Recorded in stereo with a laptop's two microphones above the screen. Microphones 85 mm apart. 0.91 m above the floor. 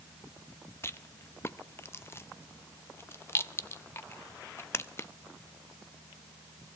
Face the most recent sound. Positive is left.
turn(degrees=30)  # may be behind; listen again after turning